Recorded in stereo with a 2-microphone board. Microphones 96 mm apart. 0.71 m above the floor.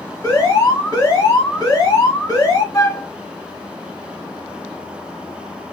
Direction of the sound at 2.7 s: 35° left (ahead or behind).